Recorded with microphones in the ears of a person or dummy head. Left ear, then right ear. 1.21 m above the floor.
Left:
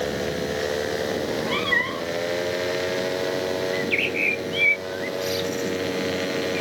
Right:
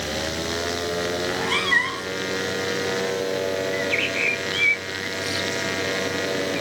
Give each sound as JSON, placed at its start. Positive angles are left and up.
{"t": 1.2, "sound": "a cat meowing", "side_deg": -20}
{"t": 3.7, "sound": "a bird", "side_deg": 5}